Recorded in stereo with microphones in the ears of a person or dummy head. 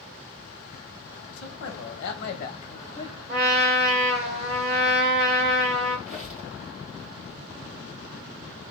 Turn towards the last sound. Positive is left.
turn(degrees=0)  # may be behind; listen again after turning